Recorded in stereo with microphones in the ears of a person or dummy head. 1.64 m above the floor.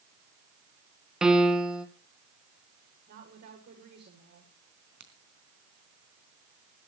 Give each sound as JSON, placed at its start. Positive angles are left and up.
{"t": 1.2, "sound": "a piano", "side_deg": -5, "distance_m": 2.0}
{"t": 3.1, "sound": "a woman speaking", "side_deg": -55, "distance_m": 7.5}
{"t": 5.0, "sound": "a crack", "side_deg": -65, "distance_m": 3.0}